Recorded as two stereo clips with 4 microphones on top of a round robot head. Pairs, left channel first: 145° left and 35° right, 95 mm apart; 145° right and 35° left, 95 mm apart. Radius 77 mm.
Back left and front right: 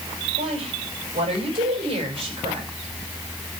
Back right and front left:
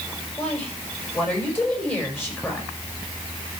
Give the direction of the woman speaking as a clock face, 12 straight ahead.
2 o'clock.